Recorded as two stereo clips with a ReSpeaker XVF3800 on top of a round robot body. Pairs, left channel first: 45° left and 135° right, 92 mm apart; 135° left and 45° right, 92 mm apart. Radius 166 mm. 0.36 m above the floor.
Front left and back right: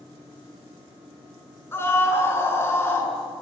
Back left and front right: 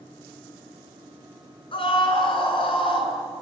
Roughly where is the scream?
Left.